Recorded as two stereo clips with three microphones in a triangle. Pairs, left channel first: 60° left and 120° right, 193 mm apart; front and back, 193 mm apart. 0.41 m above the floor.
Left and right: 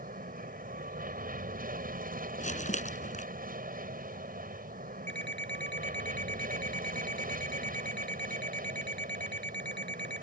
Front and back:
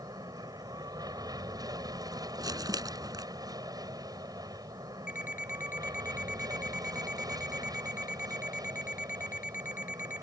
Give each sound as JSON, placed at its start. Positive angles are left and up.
{"t": 0.0, "sound": "an aircraft", "azimuth_deg": -115}
{"t": 2.4, "sound": "crumpling", "azimuth_deg": 110}
{"t": 5.1, "sound": "an alarm clock", "azimuth_deg": 45}